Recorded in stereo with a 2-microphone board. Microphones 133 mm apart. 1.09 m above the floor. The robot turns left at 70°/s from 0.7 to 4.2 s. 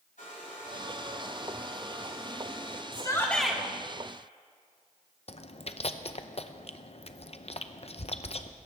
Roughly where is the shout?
Ahead left.